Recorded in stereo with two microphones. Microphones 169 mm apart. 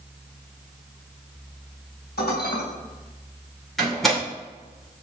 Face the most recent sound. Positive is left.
turn(degrees=0)  # may be behind; listen again after turning